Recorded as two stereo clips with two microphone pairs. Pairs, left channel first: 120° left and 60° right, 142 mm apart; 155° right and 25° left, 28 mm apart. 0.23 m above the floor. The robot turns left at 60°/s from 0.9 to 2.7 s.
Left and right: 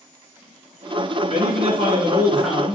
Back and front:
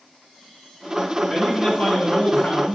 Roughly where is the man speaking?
Right.